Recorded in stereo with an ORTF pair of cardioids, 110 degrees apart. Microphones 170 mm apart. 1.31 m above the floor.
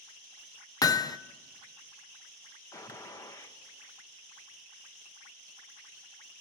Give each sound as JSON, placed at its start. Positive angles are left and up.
{"t": 0.8, "sound": "hammering", "azimuth_deg": 20, "distance_m": 0.7}
{"t": 2.7, "sound": "a gunshot", "azimuth_deg": 20, "distance_m": 1.6}